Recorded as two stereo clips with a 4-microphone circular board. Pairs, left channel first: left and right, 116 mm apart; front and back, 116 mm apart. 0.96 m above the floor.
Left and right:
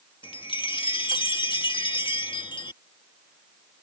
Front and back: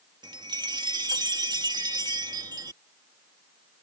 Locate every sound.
0.2 s a chime: 130° left